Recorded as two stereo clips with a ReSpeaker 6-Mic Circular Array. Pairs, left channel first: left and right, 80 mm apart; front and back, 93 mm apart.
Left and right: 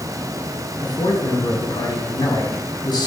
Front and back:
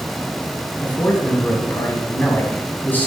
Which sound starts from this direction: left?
A man speaking, at 0.8 s.